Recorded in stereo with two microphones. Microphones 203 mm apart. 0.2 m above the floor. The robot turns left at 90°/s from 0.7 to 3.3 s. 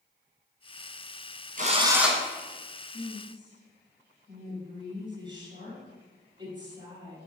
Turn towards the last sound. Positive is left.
turn(degrees=-25)